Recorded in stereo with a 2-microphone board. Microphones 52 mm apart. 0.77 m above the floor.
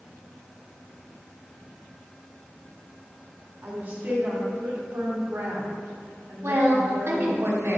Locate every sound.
3.6 s a woman speaking: 40° right (ahead or behind), 2.5 m; by 7.4 s 70° right (ahead or behind), 2 m
6.4 s a woman speaking: 60° right (ahead or behind), 1.6 m